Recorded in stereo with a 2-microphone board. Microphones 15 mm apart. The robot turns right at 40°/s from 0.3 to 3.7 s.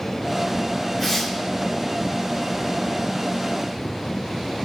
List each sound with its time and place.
1.0 s tearing paper: centre (ahead or behind), 2.5 m; by 1.3 s 15° left (ahead or behind), 2.5 m